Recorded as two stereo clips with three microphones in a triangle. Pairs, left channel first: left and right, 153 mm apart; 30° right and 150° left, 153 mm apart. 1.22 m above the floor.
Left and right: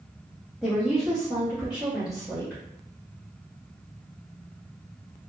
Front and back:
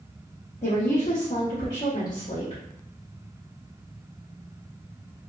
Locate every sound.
0.6 s a woman speaking: 5° right, 0.7 m